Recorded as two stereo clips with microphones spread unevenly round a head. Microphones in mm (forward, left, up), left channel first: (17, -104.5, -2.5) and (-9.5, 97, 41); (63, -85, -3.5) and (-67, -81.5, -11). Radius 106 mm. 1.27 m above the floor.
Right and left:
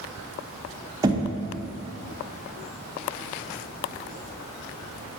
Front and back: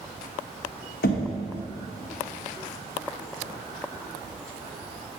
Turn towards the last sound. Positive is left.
turn(degrees=25)